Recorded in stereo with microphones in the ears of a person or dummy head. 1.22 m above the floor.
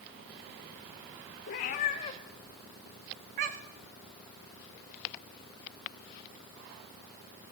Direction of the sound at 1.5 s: 40° left (ahead or behind).